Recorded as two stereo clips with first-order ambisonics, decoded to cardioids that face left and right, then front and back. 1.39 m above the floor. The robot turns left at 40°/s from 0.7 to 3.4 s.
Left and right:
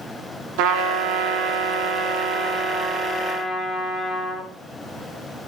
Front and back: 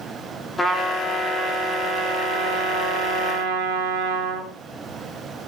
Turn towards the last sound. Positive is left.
turn(degrees=175)